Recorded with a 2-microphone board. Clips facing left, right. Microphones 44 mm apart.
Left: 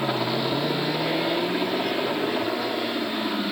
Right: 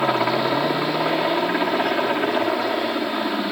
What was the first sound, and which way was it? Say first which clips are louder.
A helicopter: right 5 dB; 60° right (ahead or behind).